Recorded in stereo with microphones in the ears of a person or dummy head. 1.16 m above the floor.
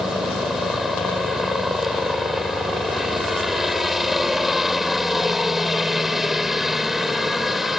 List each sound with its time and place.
0.0 s a helicopter: 5° right (ahead or behind)